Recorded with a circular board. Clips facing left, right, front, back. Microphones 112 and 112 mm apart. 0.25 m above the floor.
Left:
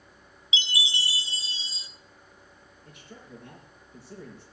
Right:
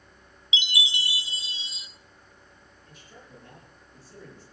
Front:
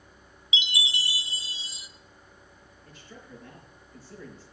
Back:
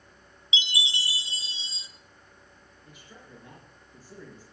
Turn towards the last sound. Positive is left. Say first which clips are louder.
# left 4 dB, front 3 dB
turn(degrees=105)